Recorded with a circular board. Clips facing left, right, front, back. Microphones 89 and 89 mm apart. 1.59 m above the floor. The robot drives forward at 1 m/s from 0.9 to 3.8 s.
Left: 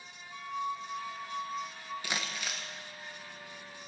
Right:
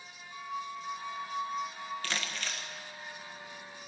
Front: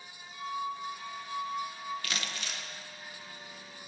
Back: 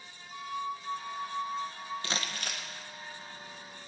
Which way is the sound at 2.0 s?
150° left.